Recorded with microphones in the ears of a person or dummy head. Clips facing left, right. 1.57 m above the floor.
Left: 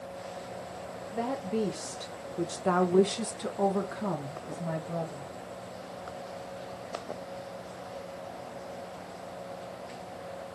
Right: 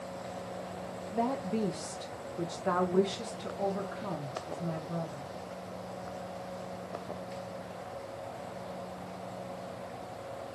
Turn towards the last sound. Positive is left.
turn(degrees=55)  # may be behind; listen again after turning